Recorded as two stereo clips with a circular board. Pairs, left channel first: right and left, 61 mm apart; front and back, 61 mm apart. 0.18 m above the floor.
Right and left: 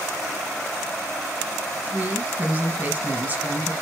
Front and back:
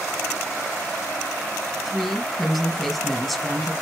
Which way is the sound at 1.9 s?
90° left.